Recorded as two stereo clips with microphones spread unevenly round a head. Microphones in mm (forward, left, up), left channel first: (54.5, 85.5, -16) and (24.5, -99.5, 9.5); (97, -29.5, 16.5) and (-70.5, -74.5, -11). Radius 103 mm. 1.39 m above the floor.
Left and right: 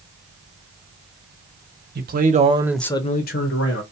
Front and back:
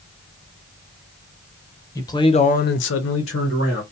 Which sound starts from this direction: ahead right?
A man speaking, at 1.9 s.